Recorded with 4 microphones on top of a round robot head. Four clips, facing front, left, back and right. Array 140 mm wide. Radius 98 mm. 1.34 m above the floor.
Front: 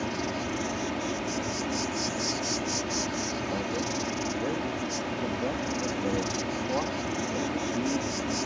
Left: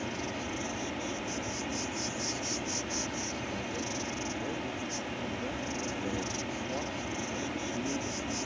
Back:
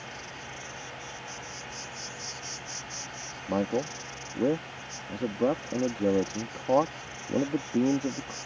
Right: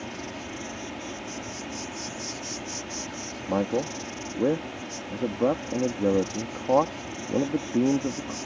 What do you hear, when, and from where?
0.0 s an insect: straight ahead
3.5 s a man speaking: 115° right